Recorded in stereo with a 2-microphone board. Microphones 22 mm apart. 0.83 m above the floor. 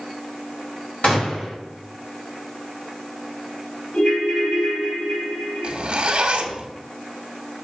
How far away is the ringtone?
About 5.5 m.